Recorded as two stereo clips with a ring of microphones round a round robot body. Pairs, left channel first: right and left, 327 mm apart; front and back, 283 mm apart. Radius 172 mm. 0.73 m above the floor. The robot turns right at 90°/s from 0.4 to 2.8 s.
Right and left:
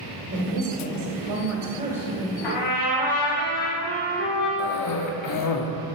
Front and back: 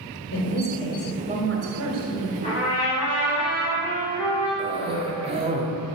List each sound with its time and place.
0.3 s a woman speaking: 35° left, 2 m; by 2.3 s 150° right, 2 m
2.4 s a trumpet: 75° right, 4 m; by 4.5 s 40° right, 4 m
4.6 s a cough: 110° right, 1.4 m